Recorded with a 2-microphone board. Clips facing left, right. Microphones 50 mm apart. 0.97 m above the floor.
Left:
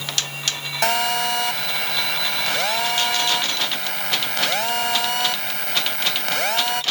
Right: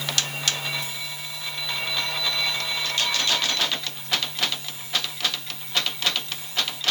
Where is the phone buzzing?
85° left.